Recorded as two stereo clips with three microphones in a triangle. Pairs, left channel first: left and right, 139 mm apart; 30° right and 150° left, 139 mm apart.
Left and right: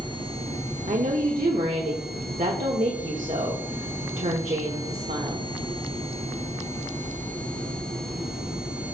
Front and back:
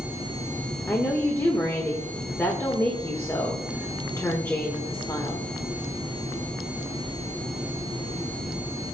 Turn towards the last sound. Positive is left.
turn(degrees=-105)